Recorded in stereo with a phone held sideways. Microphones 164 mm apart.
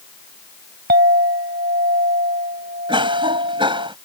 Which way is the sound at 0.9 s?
80° right.